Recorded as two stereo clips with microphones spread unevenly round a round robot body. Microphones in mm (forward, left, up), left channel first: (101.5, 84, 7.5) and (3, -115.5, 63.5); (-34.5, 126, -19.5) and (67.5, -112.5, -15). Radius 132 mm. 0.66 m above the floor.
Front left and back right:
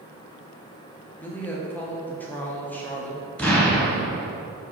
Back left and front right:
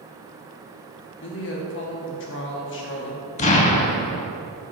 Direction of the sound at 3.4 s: 165° left.